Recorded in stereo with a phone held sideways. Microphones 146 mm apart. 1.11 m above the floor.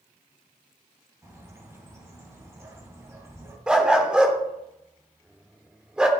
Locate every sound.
1.2 s a bird: 20° right (ahead or behind), 2.5 m
3.7 s a dog barking: 5° right (ahead or behind), 1.2 m